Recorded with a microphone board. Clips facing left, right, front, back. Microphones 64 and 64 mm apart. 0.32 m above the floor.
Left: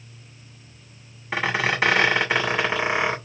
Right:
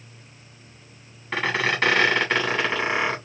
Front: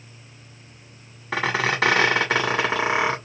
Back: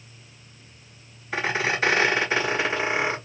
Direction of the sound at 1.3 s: 5° left.